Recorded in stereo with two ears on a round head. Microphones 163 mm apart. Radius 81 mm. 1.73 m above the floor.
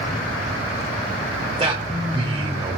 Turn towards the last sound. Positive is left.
turn(degrees=-25)  # may be behind; listen again after turning